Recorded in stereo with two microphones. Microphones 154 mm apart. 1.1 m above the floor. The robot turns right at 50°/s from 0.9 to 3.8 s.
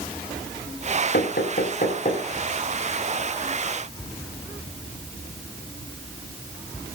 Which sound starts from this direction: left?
Knocking, at 1.1 s.